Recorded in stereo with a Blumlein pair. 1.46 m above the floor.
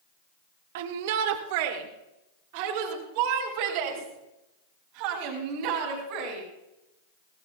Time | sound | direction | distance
0.8 | a shout | 55° right | 1.3 m